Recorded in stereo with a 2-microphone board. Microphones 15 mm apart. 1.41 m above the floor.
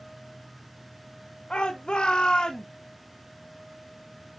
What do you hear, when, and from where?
1.5 s a shout: 90° left, 1.1 m; by 2.7 s 45° left (ahead or behind), 1.2 m